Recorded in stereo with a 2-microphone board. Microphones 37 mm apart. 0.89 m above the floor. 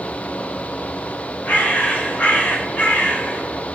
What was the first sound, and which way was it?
A bird, 50° left (ahead or behind).